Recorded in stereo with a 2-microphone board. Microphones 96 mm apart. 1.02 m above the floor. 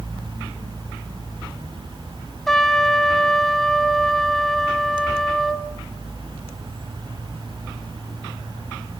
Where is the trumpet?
5° left (ahead or behind), 1.1 m.